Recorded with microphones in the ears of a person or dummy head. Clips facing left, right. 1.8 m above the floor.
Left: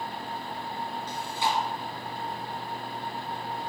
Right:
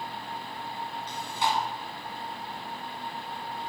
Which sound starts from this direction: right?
Chewing, at 1.1 s.